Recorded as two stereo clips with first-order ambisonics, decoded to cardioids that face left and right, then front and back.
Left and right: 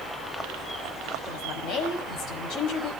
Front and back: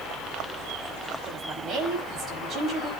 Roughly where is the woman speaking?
Behind left.